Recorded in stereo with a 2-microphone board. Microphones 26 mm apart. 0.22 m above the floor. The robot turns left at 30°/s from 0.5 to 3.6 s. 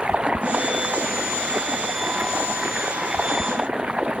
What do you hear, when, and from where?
0.0 s running water: 50° right; by 4.2 s 140° right